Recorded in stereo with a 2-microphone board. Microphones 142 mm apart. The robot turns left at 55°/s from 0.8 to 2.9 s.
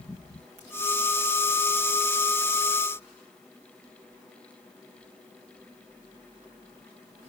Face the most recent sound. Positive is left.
No sound to turn to.